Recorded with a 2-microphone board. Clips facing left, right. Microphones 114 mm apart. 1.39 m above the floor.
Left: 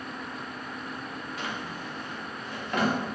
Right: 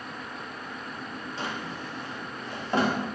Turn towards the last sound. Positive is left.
turn(degrees=-30)  # may be behind; listen again after turning